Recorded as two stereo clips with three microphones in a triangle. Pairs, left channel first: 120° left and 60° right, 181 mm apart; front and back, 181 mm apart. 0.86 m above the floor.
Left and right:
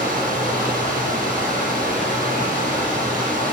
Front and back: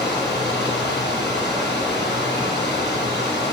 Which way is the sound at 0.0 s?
20° right.